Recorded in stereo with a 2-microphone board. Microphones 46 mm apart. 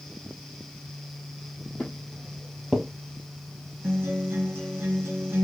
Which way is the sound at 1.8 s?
35° left (ahead or behind).